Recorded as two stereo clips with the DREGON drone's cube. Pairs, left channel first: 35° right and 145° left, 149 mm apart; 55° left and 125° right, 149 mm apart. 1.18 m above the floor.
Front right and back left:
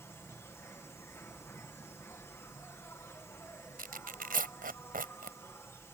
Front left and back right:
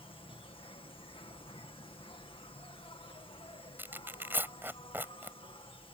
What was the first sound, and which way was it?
An insect, 30° left.